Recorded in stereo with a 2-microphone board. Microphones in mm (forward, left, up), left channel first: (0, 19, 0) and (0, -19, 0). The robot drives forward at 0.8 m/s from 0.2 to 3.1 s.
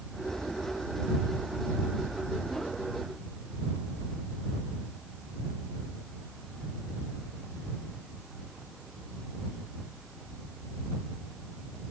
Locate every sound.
Only background noise.